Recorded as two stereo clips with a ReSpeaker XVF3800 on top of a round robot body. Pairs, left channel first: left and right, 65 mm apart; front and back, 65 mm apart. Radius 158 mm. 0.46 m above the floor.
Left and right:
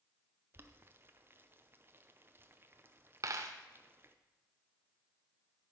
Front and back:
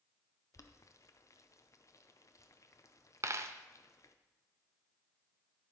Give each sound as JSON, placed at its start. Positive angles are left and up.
{"t": 0.5, "sound": "boiling", "azimuth_deg": -35, "distance_m": 0.7}
{"t": 3.2, "sound": "a dropped coin", "azimuth_deg": -135, "distance_m": 0.5}